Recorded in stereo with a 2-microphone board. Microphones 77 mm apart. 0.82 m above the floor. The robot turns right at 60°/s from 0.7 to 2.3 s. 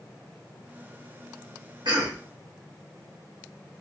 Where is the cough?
70° right (ahead or behind), 1.1 m; by 2.2 s 65° right (ahead or behind), 1.1 m.